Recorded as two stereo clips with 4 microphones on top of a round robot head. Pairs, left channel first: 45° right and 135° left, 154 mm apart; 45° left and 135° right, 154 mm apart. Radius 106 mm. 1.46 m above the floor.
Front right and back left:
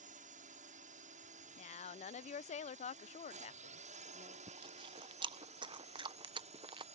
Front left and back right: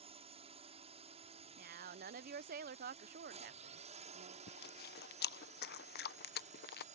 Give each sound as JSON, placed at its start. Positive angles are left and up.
{"t": 0.0, "sound": "a drone", "azimuth_deg": 175}
{"t": 1.6, "sound": "a woman speaking", "azimuth_deg": -95}
{"t": 4.5, "sound": "chewing", "azimuth_deg": 70}